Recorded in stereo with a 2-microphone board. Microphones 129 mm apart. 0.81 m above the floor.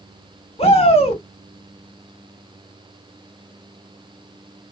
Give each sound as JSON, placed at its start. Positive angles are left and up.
{"t": 0.6, "sound": "a shout", "side_deg": 45, "distance_m": 1.3}